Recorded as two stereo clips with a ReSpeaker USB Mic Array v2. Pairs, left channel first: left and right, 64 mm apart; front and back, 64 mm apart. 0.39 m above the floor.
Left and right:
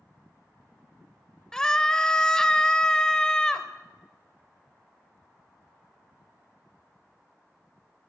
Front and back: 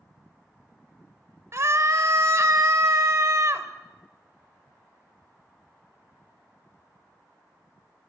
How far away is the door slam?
No door slam in this recording.